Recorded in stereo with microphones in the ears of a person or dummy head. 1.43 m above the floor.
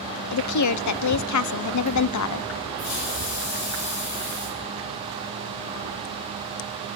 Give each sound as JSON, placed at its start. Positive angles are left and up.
{"t": 0.3, "sound": "a woman speaking", "side_deg": 80, "distance_m": 0.6}
{"t": 2.8, "sound": "a hiss", "side_deg": 85, "distance_m": 4.5}